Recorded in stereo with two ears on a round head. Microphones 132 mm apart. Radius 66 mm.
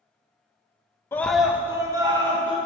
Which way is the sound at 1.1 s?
15° left (ahead or behind).